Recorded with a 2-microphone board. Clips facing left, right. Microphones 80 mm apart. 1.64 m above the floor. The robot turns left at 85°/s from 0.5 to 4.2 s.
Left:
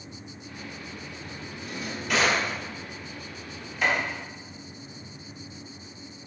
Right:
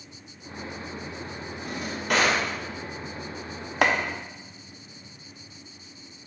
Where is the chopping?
75° right (ahead or behind), 0.8 m; by 4.0 s 70° right (ahead or behind), 0.8 m.